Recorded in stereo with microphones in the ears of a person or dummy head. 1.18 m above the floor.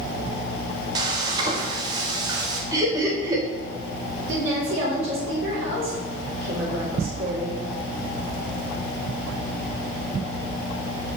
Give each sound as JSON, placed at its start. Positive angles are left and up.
{"t": 0.9, "sound": "frying", "side_deg": -25, "distance_m": 0.6}
{"t": 2.7, "sound": "laughter", "side_deg": -25, "distance_m": 1.3}
{"t": 4.3, "sound": "a woman speaking", "side_deg": -70, "distance_m": 2.5}